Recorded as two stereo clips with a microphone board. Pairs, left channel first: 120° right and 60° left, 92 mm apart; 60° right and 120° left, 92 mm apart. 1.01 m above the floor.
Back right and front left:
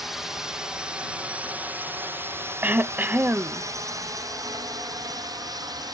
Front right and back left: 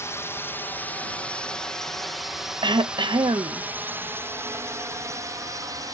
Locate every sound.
0.0 s a drone: 25° right; by 5.9 s 85° left
2.6 s throat clearing: 125° left